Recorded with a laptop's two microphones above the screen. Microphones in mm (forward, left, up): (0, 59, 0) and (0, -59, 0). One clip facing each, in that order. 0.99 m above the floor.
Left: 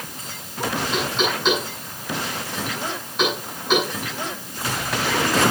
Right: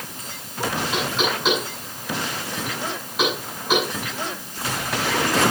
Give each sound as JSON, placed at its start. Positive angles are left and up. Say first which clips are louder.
{"t": 0.9, "sound": "knocking", "louder": "left 1 dB", "side_deg": -5, "distance_m": 7.5}